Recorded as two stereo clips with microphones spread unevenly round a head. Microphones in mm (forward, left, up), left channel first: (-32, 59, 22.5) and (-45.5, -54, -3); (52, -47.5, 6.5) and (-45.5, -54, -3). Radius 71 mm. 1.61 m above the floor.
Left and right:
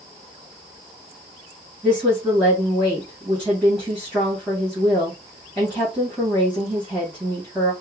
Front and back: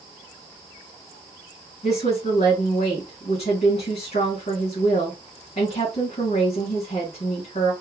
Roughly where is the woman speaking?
Ahead.